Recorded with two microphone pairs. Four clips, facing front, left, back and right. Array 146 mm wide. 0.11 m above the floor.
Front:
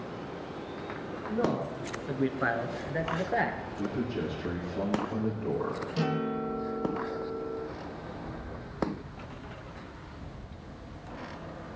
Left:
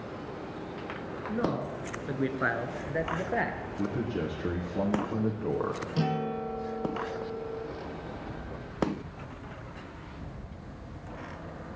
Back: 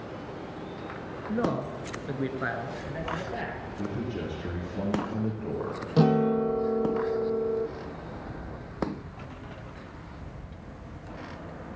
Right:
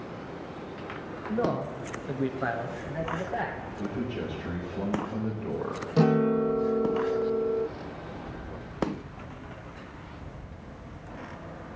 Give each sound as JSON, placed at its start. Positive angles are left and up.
{"t": 1.3, "sound": "a man speaking", "azimuth_deg": -175, "distance_m": 1.9}
{"t": 3.8, "sound": "a man speaking", "azimuth_deg": 90, "distance_m": 4.5}
{"t": 6.0, "sound": "a guitar", "azimuth_deg": -145, "distance_m": 1.3}